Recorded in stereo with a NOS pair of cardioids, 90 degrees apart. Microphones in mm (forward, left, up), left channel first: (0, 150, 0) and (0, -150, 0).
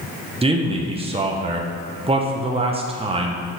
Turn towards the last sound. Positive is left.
turn(degrees=-20)